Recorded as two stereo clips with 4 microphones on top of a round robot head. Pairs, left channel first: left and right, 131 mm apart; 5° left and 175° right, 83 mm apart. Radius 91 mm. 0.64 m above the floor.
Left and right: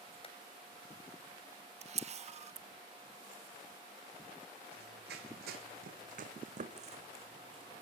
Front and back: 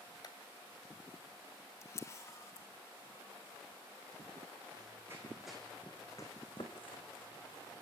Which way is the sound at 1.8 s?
55° right.